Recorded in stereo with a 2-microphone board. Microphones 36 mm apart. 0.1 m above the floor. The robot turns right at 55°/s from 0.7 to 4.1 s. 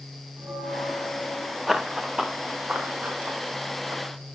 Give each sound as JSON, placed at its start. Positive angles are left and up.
{"t": 0.4, "sound": "a bell", "azimuth_deg": -130, "distance_m": 4.5}
{"t": 1.7, "sound": "running footsteps", "side_deg": -10, "distance_m": 0.7}